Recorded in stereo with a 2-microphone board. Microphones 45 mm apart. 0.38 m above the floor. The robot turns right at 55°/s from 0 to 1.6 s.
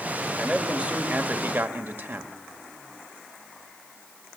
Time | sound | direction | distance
0.4 | a man speaking | 170° right | 1.3 m